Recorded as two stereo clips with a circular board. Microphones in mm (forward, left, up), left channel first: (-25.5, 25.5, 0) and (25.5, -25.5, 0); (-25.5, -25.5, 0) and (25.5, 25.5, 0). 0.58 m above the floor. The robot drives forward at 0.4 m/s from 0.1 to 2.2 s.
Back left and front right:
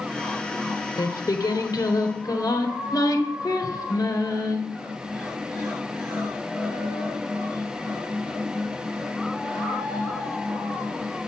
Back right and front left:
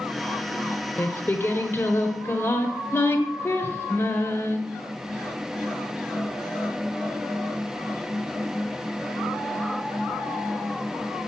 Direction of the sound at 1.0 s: 165° left.